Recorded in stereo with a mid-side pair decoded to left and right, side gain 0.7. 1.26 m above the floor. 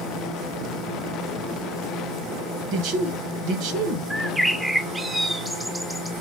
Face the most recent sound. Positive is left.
turn(degrees=-5)